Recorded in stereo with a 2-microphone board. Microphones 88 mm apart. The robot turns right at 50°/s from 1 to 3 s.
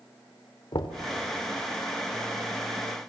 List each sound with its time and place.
0.7 s knocking: 60° left (ahead or behind), 1.4 m